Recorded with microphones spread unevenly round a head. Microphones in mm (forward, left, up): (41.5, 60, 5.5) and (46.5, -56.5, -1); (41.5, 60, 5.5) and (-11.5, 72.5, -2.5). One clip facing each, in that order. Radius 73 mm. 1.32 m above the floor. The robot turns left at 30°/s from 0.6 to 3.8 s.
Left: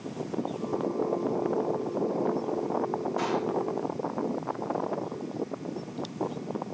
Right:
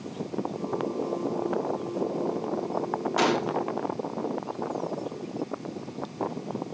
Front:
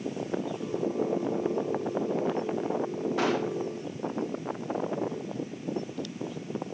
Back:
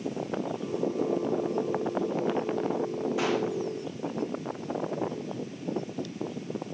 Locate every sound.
3.2 s a gunshot: 85° right, 1.2 m; by 3.6 s 100° right, 1.2 m